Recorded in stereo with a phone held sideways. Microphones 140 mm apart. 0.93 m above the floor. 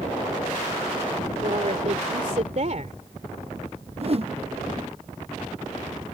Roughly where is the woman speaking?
Right.